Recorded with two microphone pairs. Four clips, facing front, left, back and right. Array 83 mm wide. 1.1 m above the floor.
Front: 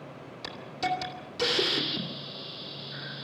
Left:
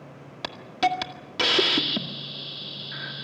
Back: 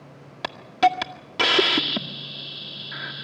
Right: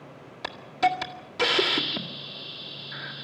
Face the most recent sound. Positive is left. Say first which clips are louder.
# even, back 11 dB
turn(degrees=170)